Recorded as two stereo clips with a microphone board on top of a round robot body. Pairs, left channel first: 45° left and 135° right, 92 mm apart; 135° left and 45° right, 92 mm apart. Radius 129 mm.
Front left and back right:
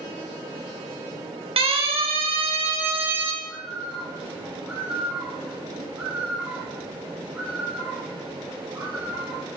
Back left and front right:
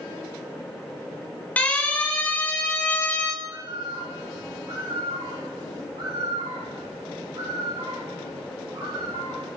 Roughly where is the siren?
Behind right.